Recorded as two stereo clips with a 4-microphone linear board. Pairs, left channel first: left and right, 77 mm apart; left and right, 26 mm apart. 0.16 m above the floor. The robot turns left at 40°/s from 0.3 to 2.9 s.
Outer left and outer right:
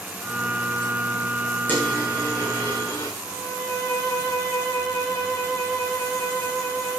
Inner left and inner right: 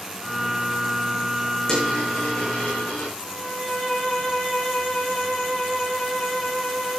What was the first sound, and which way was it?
A dropped coin, 20° left (ahead or behind).